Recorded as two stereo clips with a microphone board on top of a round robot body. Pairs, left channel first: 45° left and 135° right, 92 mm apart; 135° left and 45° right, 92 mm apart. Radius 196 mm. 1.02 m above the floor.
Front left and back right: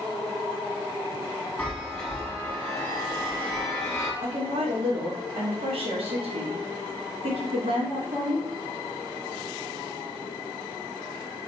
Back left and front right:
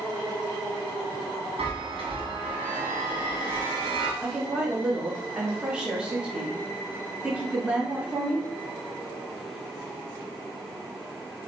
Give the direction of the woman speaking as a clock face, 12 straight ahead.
4 o'clock.